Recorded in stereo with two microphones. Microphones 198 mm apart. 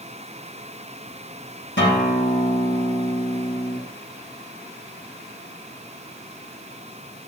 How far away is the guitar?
About 5.5 m.